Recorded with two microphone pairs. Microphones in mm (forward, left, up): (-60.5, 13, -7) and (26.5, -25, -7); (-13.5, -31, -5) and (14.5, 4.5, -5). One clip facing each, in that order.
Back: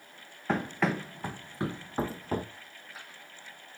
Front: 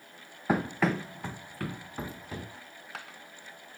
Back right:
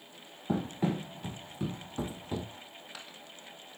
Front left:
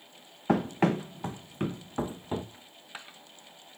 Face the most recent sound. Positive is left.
turn(degrees=-15)